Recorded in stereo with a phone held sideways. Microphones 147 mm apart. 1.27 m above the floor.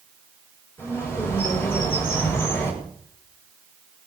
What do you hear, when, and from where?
0.8 s a bird: 15° left (ahead or behind), 7 m